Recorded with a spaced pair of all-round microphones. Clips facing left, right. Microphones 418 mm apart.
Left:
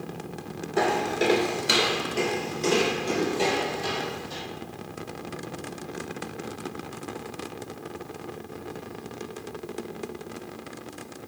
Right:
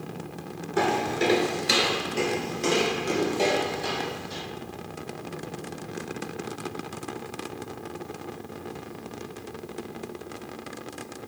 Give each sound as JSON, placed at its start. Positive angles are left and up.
{"t": 0.8, "sound": "footsteps", "side_deg": -20, "distance_m": 1.0}